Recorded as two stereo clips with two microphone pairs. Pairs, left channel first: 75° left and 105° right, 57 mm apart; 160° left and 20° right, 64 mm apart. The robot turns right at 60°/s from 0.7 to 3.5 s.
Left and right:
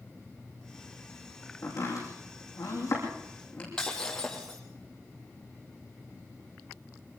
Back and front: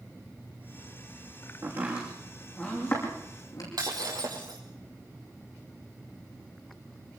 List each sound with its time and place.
1.6 s chopping: 35° left, 7 m; by 3.7 s 145° left, 7 m
3.8 s breaking glass: straight ahead, 3.5 m